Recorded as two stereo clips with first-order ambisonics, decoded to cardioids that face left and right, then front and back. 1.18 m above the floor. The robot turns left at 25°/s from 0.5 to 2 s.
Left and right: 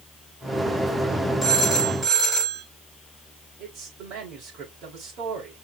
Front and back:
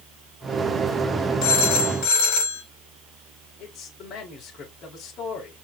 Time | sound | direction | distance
1.4 | a phone ringing | 5° right | 4 m
3.6 | a man speaking | 50° right | 4.5 m